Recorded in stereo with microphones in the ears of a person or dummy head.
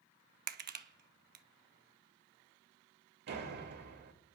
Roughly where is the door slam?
Right.